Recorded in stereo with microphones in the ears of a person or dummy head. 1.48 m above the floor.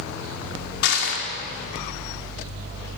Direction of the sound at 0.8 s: 60° left (ahead or behind).